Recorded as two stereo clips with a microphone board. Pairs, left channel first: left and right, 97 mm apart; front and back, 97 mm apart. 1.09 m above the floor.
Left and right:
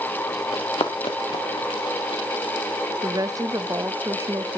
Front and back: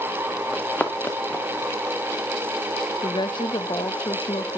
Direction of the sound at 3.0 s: 35° right.